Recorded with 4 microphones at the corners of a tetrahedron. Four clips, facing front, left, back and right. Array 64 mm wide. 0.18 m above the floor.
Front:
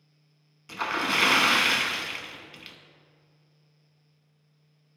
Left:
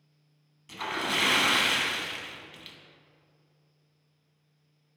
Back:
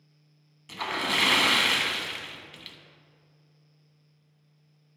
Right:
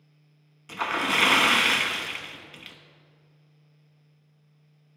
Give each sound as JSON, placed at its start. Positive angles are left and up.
{"t": 0.7, "sound": "a splash", "azimuth_deg": -65, "distance_m": 0.7}